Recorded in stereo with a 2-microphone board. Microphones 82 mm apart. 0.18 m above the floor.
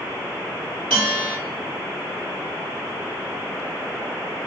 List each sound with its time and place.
0.9 s a bell: 15° left (ahead or behind), 1.6 m